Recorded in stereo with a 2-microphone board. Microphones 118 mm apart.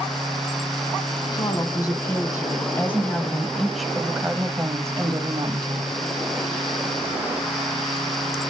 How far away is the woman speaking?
About 2 m.